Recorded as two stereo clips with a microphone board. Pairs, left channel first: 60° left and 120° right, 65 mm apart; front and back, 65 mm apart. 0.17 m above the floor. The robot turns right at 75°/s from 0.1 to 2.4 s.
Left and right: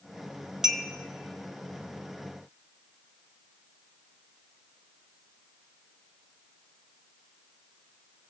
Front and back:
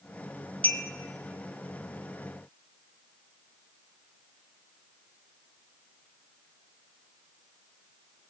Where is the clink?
50° right, 1.1 m; by 0.8 s 35° right, 1.1 m.